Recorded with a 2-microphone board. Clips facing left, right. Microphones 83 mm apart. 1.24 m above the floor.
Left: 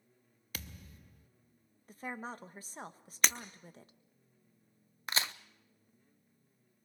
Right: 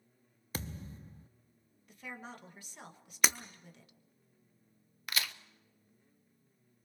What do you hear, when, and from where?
0.5 s a thud: 30° right (ahead or behind), 0.7 m
1.9 s a woman speaking: 35° left (ahead or behind), 1.5 m
3.2 s breaking glass: 5° right (ahead or behind), 0.9 m
5.1 s a crack: 30° left (ahead or behind), 0.7 m